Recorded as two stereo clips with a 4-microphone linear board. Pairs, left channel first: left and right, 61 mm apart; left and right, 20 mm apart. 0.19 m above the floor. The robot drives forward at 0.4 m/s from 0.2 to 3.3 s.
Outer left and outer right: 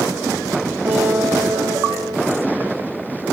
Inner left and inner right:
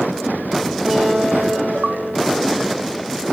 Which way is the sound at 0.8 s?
65° right (ahead or behind).